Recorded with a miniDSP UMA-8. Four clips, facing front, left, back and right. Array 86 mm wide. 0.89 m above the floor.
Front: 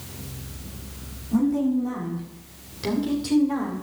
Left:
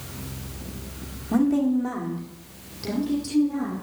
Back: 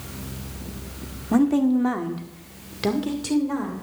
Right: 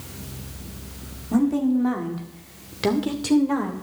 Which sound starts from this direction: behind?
A woman speaking, at 1.3 s.